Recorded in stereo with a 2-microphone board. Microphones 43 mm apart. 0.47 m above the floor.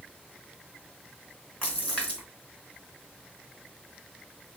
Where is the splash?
30° left (ahead or behind), 3 m.